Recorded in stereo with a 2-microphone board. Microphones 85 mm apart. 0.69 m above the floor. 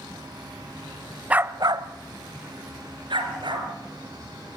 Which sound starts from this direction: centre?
A dog barking, at 1.3 s.